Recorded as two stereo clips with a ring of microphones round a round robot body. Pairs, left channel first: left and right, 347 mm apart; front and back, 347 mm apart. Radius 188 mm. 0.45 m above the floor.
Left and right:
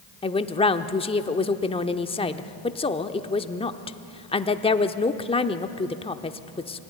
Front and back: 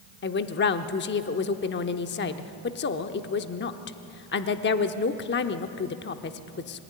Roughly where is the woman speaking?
Ahead left.